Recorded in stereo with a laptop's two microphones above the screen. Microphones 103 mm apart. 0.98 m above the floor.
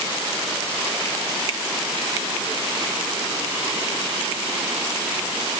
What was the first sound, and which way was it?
Only background noise.